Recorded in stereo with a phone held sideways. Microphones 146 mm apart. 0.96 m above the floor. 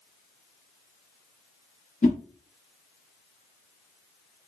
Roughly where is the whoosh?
Left.